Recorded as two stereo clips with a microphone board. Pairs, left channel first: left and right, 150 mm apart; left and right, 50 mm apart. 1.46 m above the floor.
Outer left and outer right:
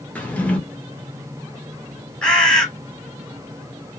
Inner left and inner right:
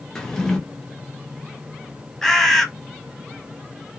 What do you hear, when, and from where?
0.1 s a drawer: 10° left (ahead or behind), 0.7 m
2.2 s a bird: 5° left (ahead or behind), 0.9 m